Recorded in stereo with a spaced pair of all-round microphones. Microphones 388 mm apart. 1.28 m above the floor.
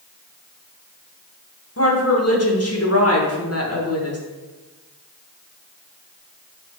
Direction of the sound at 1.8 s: 40° left (ahead or behind).